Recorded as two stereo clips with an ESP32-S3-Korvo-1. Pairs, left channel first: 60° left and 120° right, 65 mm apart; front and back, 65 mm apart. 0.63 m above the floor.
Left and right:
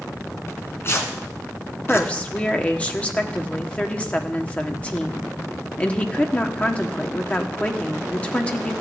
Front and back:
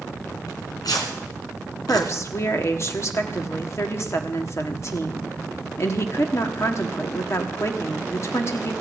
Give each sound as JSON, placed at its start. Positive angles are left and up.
{"t": 0.5, "sound": "tearing paper", "azimuth_deg": 10, "distance_m": 2.5}
{"t": 1.9, "sound": "a woman speaking", "azimuth_deg": 0, "distance_m": 1.2}